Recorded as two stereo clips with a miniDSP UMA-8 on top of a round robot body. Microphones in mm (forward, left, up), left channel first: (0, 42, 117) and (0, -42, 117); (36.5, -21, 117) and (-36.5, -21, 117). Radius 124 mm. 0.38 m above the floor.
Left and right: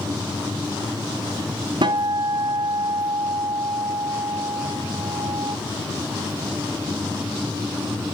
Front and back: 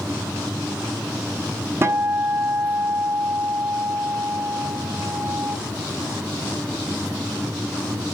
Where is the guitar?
125° right, 1.3 m.